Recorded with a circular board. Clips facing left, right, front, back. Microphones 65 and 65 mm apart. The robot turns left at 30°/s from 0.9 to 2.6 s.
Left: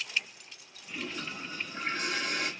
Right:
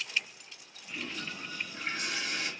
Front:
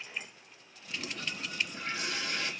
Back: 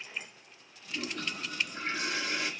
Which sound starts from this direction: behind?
A toilet flushing, at 0.9 s.